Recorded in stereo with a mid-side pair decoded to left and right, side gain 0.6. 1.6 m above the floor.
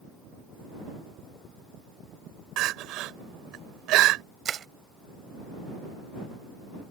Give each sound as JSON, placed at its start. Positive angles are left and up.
{"t": 2.6, "sound": "crying", "azimuth_deg": -70}
{"t": 4.5, "sound": "crushing", "azimuth_deg": -40}